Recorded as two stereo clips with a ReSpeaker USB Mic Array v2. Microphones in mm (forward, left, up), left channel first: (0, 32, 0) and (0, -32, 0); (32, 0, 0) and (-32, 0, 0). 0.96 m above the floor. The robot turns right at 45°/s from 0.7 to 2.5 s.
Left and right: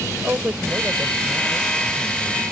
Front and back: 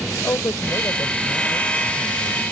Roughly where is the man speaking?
Ahead right.